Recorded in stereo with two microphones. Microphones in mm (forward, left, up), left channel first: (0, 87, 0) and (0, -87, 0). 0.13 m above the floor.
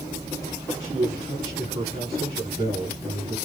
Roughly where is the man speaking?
Right.